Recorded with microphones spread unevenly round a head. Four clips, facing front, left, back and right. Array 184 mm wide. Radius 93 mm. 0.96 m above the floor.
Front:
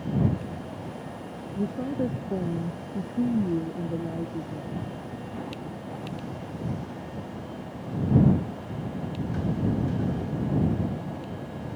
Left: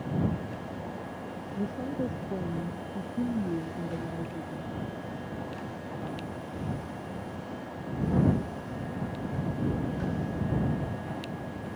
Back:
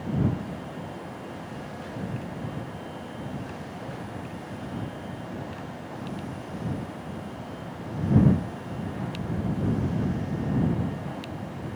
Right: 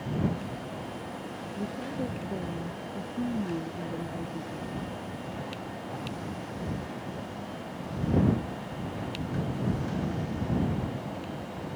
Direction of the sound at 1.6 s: 10° left.